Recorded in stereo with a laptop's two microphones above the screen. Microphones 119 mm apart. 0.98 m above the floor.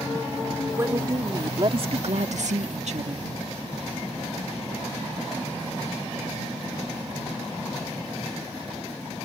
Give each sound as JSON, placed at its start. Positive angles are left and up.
{"t": 0.7, "sound": "a woman speaking", "side_deg": -25}